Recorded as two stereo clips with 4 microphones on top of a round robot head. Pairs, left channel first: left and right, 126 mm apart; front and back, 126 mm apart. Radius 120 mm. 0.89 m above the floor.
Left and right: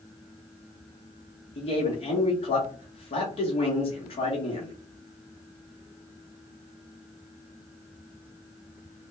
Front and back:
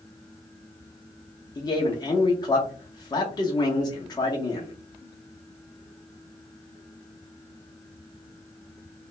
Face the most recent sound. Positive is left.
turn(degrees=55)